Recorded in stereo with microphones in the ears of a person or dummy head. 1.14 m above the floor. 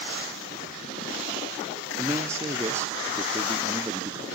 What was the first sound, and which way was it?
A man speaking, 10° right (ahead or behind).